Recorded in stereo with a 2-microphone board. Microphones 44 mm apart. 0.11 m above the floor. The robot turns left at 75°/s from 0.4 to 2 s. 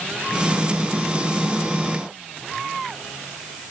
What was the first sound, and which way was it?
Only background noise.